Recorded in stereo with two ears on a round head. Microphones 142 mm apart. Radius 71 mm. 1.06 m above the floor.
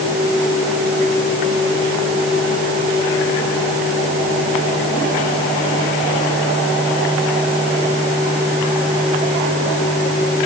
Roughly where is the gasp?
I don't hear a gasp.